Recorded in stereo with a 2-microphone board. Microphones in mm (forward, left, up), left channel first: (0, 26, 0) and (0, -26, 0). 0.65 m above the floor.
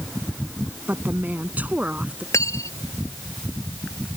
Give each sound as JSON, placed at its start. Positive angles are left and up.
{"t": 0.9, "sound": "a woman speaking", "side_deg": -35}
{"t": 2.3, "sound": "cutlery clinking", "side_deg": 80}